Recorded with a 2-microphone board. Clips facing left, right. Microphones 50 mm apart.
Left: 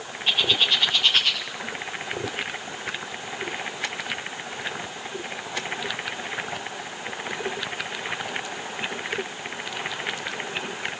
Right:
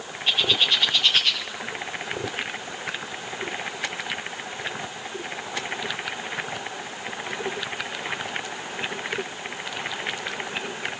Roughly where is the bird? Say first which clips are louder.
Even; centre.